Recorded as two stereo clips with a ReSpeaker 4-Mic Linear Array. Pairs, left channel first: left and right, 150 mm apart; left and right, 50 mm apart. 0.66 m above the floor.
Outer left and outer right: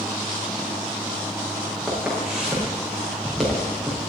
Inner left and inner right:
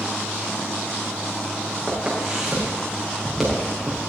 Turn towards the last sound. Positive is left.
turn(degrees=0)  # may be behind; listen again after turning